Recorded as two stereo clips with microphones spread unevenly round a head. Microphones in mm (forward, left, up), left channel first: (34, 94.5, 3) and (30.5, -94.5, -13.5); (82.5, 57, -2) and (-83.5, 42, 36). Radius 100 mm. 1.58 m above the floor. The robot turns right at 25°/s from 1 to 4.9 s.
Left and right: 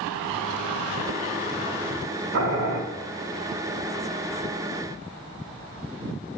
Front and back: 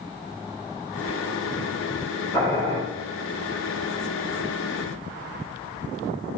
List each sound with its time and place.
2.3 s boiling: 70° right, 5 m; by 2.8 s 60° right, 5 m